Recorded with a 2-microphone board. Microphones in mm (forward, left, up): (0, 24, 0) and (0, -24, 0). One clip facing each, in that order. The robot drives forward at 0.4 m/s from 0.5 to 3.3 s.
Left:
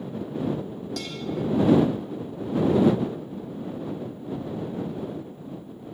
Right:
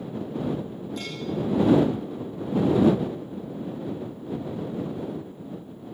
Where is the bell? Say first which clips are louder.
Even; 75° left (ahead or behind), 4.5 m.